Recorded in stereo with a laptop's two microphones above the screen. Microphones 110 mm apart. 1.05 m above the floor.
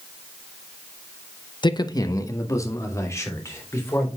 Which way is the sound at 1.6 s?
45° left (ahead or behind).